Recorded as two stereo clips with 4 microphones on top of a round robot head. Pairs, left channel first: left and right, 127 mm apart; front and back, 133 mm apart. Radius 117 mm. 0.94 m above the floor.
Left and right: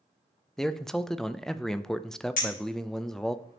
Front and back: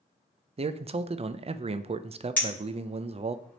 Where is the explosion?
No explosion in this recording.